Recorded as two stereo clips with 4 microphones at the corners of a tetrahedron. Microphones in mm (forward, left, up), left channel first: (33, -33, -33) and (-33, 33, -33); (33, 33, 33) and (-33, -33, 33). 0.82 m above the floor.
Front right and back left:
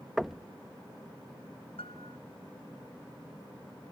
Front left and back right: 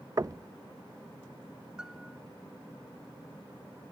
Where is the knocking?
140° right.